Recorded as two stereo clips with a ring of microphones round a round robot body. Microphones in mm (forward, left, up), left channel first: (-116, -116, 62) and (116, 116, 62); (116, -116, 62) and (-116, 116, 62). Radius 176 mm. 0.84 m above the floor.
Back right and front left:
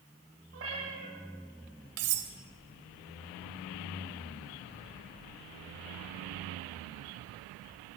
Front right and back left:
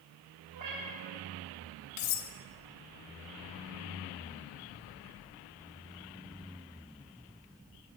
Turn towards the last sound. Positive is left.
turn(degrees=-5)